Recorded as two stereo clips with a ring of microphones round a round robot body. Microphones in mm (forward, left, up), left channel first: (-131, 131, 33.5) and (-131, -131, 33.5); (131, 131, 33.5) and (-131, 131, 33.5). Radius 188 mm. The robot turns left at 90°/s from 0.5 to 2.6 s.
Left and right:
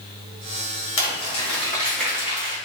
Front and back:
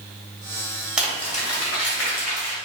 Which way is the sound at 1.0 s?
95° left.